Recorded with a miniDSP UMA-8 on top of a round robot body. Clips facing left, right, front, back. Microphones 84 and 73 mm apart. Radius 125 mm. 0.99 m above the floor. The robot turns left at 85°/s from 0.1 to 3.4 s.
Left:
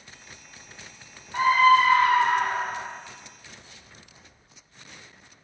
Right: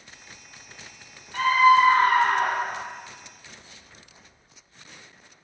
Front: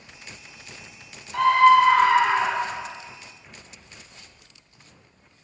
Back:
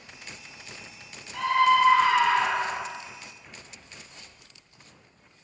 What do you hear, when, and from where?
1.3 s a scream: 20° left, 0.6 m; by 2.9 s 110° right, 0.6 m